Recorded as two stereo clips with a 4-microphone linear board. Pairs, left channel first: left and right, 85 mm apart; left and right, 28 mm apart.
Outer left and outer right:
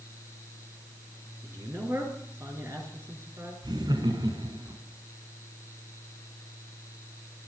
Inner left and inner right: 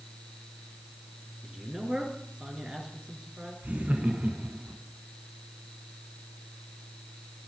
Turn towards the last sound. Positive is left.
turn(degrees=-65)  # may be behind; listen again after turning